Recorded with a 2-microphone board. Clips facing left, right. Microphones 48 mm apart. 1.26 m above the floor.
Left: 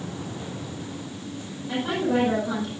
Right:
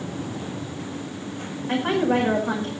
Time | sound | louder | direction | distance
1.7 | a woman speaking | right 3 dB | 45° right (ahead or behind) | 6 m